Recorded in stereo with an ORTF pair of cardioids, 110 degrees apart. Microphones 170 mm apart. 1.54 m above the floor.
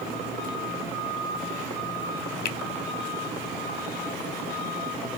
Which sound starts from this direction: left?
A finger snap, at 2.5 s.